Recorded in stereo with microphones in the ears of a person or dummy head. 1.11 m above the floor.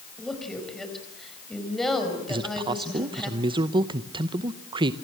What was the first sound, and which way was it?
A woman speaking, centre (ahead or behind).